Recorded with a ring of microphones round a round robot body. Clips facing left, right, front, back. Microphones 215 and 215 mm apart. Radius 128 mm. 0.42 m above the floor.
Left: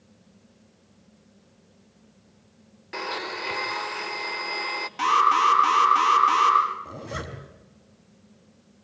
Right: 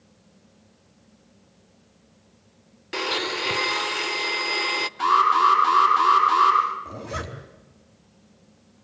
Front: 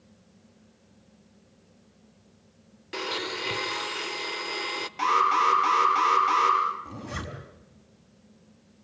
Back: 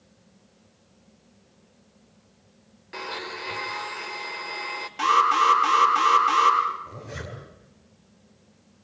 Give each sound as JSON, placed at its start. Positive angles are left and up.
{"t": 2.9, "sound": "a blender", "azimuth_deg": -45, "distance_m": 0.9}
{"t": 5.0, "sound": "an alarm", "azimuth_deg": 95, "distance_m": 8.0}
{"t": 6.8, "sound": "a zipper", "azimuth_deg": 10, "distance_m": 4.5}